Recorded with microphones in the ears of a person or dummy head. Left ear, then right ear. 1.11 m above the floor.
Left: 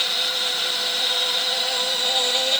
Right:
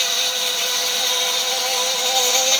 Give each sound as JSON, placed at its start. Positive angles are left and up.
{"t": 0.0, "sound": "an insect", "side_deg": -65}